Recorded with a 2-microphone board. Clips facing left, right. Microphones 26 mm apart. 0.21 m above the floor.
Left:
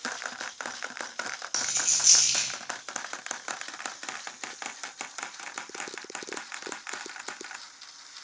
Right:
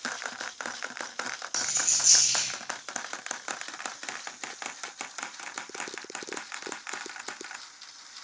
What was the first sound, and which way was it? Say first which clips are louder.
A dropped coin: left 1 dB; 35° left (ahead or behind).